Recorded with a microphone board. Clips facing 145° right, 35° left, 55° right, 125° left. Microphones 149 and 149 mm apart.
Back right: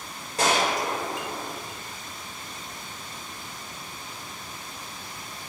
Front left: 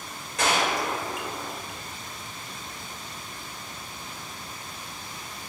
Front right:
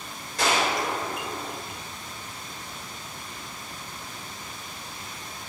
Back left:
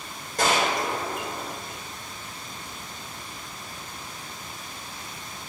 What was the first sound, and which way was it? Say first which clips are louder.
A gunshot: back right 1 dB, back left 1 dB; 160° left.